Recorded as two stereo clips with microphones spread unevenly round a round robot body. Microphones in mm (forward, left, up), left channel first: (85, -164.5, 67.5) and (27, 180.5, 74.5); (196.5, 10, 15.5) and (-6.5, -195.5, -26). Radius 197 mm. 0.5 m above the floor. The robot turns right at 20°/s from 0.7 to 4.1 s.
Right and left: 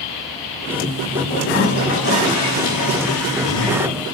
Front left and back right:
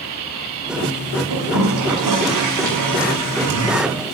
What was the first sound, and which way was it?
A toilet flushing, 150° right.